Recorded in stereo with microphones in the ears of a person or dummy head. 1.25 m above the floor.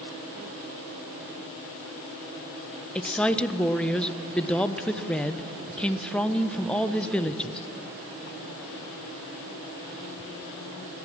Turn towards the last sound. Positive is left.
turn(degrees=5)  # may be behind; listen again after turning